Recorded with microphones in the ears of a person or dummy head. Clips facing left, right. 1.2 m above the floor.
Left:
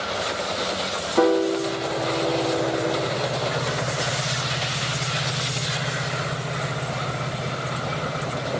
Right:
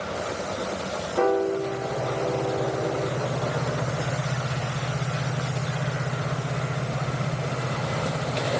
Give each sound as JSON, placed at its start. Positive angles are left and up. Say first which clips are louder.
{"t": 1.2, "sound": "a piano", "louder": "left 4 dB", "side_deg": 85, "distance_m": 0.9}